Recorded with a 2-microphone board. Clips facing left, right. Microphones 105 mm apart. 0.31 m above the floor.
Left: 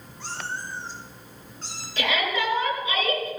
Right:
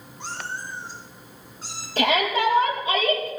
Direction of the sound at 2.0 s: 40° right (ahead or behind).